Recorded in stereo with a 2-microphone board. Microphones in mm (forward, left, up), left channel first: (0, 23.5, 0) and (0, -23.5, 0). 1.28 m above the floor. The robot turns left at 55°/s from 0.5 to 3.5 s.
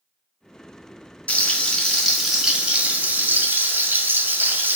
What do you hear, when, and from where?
1.3 s frying: 45° left, 1.2 m; by 4.8 s 75° right, 1.2 m